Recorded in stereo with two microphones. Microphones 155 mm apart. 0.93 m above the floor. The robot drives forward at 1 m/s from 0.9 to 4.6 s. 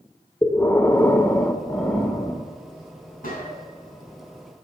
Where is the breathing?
15° left (ahead or behind), 0.6 m; by 2.5 s 5° left (ahead or behind), 1.5 m.